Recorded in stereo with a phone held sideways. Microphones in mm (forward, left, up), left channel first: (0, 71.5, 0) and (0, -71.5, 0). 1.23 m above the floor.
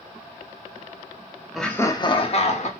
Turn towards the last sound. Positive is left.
turn(degrees=50)  # may be behind; listen again after turning